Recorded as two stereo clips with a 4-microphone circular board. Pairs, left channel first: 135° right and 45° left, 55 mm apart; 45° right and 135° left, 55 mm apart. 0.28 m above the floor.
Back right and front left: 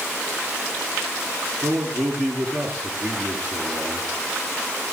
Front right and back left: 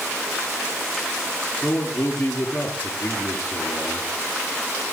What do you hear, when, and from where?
1.6 s a man speaking: 25° left, 4 m